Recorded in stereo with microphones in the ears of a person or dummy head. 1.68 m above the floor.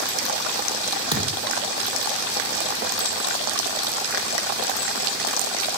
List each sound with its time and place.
1.1 s a thud: 25° right (ahead or behind), 4 m